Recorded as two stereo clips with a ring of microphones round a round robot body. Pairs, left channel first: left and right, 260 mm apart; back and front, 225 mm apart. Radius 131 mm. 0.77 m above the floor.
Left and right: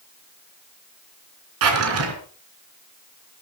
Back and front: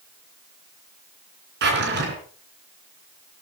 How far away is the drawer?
About 3.5 m.